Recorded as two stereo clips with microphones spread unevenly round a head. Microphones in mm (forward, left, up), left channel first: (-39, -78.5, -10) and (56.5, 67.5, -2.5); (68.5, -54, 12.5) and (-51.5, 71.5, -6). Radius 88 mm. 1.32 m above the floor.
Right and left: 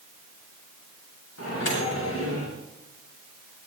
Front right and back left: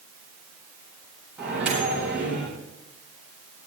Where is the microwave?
145° right, 8.5 m.